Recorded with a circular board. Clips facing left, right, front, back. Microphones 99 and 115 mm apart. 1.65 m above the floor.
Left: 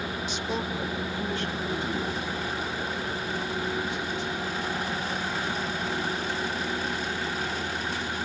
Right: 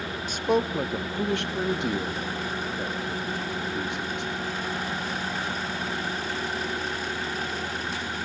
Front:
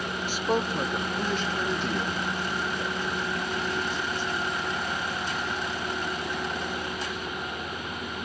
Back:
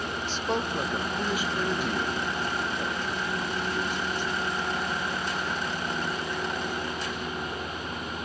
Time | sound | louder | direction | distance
0.3 | a man speaking | right 10 dB, front 3 dB | 75° right | 0.7 m